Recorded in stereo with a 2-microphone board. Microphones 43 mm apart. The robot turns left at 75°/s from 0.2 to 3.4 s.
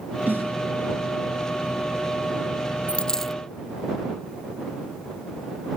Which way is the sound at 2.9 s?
35° left.